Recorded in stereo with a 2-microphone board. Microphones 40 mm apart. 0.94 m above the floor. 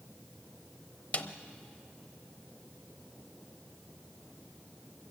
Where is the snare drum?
45° left (ahead or behind), 0.9 m.